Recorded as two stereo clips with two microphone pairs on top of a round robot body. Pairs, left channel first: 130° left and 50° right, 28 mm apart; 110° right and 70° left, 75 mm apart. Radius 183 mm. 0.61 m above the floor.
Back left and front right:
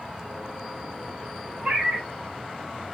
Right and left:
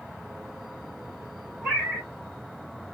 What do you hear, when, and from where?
1.6 s a cat meowing: 5° right, 2 m